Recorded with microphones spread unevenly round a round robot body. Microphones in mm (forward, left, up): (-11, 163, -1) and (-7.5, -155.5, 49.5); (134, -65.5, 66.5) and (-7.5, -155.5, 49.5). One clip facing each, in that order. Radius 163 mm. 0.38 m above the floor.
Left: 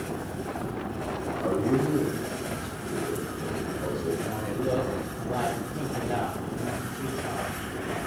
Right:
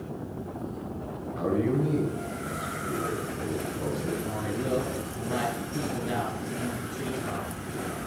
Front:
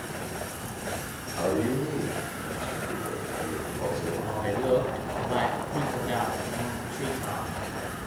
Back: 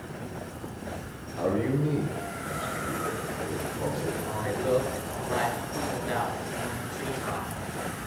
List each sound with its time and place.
1.4 s a man speaking: 85° right, 7 m
4.2 s a man speaking: 30° right, 6 m